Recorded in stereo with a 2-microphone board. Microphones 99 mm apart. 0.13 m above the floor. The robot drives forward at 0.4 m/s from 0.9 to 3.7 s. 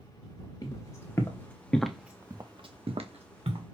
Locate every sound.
0.6 s footsteps: 40° left (ahead or behind), 1.6 m; by 3.6 s 85° right, 1.4 m